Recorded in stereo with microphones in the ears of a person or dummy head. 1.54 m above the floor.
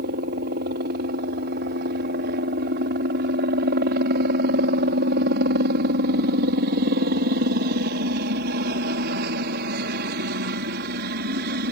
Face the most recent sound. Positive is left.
turn(degrees=-50)  # may be behind; listen again after turning